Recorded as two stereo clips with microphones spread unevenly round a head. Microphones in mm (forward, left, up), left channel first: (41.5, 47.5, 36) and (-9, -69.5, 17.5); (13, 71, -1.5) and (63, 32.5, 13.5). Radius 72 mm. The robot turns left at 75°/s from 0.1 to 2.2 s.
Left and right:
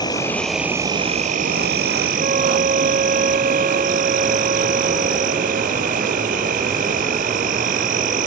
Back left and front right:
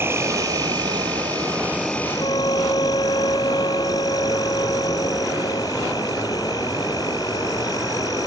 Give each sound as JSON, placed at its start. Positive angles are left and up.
{"t": 0.0, "sound": "an insect", "azimuth_deg": 10}
{"t": 2.2, "sound": "a flute", "azimuth_deg": -160}